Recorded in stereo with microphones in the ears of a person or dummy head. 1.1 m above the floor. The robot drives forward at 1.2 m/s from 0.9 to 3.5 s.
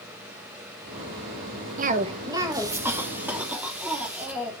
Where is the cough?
40° right (ahead or behind), 0.6 m; by 4.5 s 10° right (ahead or behind), 2.5 m.